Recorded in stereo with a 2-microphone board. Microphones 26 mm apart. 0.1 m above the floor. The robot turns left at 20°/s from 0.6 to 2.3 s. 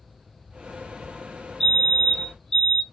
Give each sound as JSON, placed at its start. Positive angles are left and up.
{"t": 1.6, "sound": "a fire alarm", "side_deg": 10, "distance_m": 2.0}